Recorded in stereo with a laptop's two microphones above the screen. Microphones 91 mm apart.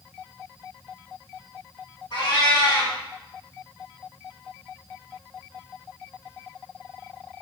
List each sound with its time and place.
2.1 s a cat meowing: 55° left (ahead or behind), 1.9 m